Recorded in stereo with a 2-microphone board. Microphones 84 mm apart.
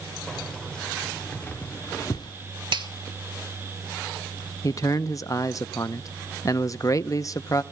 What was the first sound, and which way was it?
Keys jangling, 5° left (ahead or behind).